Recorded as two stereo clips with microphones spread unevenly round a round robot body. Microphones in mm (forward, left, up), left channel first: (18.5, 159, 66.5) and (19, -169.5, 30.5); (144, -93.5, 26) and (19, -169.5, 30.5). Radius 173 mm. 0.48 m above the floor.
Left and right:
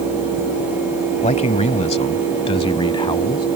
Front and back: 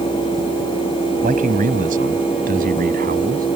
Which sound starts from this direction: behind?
A man speaking, at 1.2 s.